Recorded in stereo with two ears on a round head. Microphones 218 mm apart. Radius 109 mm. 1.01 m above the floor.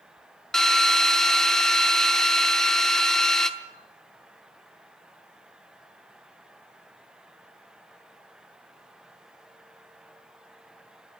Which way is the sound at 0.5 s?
Centre (ahead or behind).